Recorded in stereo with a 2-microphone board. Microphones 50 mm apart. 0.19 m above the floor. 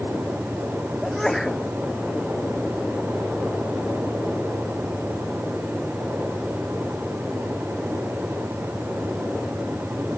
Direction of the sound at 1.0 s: 5° left (ahead or behind).